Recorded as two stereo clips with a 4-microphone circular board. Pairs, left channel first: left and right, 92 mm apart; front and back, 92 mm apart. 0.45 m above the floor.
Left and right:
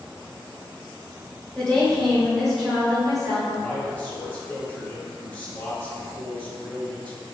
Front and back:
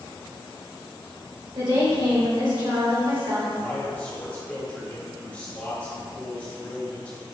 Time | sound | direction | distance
1.6 | a woman speaking | 170° left | 2.0 m
3.5 | a man speaking | 50° left | 1.3 m